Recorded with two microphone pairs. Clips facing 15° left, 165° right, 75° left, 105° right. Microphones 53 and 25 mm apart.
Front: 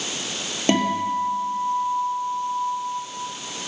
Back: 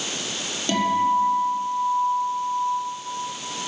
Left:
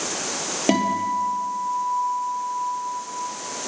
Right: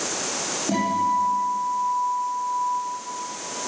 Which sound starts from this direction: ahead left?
A guitar, at 0.7 s.